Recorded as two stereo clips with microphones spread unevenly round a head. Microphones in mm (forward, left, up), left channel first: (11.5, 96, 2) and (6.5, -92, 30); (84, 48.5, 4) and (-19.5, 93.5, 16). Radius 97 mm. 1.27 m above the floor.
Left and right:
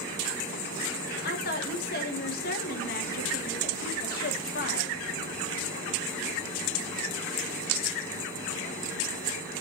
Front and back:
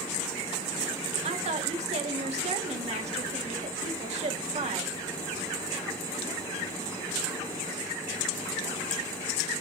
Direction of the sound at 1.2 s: 135° left.